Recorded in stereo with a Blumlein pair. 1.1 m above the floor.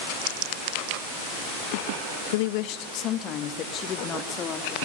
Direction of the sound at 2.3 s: 55° left.